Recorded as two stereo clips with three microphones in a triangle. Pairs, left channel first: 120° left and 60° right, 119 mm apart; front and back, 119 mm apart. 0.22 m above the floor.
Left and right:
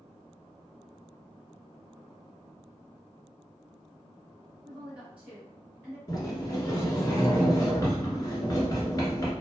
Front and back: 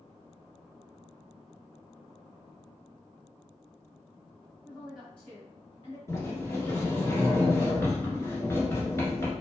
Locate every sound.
4.6 s a woman speaking: 140° right, 1.1 m; by 6.0 s 5° left, 1.4 m
6.1 s a sliding door: 65° left, 1.1 m